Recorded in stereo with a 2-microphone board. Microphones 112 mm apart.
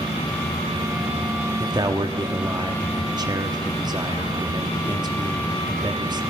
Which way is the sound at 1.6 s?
40° right (ahead or behind).